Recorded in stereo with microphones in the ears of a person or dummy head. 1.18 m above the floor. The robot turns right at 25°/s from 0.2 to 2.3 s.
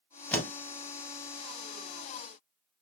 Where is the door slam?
10° left (ahead or behind), 0.6 m; by 0.5 s 15° left (ahead or behind), 0.6 m.